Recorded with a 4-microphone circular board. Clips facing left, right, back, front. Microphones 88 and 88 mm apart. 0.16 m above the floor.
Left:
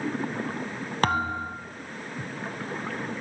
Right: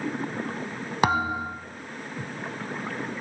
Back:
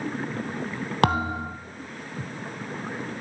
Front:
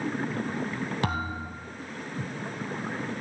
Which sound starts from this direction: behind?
A thud, at 1.0 s.